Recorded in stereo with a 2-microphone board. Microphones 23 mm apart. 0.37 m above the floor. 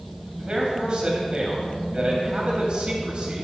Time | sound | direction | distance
0.4 | a man speaking | 45° right (ahead or behind) | 2.5 m